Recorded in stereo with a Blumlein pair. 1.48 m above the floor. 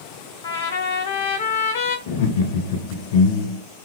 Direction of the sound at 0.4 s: 60° left.